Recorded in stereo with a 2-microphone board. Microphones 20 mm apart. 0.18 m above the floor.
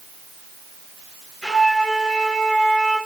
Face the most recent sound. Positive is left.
turn(degrees=45)  # may be behind; listen again after turning